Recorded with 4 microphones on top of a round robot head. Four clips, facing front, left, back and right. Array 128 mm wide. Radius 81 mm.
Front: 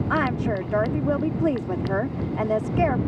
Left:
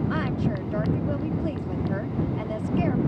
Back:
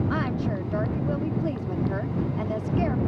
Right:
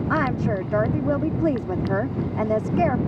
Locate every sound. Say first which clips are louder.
0.1 s a woman speaking: right 4 dB, front 4 dB; 50° right